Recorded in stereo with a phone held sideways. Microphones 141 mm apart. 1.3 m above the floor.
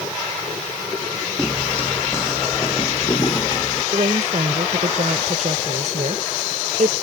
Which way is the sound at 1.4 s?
5° left (ahead or behind).